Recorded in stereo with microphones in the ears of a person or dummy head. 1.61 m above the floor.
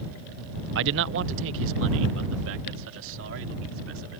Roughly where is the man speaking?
Right.